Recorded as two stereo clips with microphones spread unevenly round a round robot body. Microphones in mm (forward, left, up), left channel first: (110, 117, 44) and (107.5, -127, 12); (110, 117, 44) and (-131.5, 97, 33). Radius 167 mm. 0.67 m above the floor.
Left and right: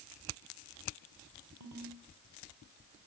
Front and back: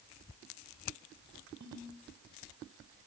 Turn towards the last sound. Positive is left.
turn(degrees=-120)